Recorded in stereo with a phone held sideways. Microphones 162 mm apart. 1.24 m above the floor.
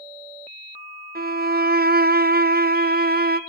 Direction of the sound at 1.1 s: 70° right (ahead or behind).